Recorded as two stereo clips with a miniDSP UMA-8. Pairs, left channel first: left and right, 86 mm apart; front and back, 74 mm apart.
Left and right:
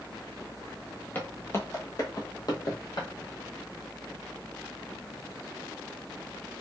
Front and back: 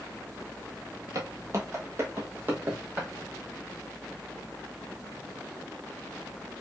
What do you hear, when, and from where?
1.1 s footsteps: 155° left, 1.1 m; by 3.1 s 110° left, 1.6 m